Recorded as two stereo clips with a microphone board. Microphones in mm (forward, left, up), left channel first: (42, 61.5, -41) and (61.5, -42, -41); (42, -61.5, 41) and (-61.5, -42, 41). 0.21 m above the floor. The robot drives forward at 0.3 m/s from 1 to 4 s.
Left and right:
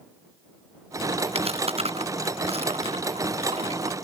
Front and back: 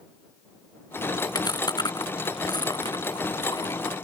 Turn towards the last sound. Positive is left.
turn(degrees=-60)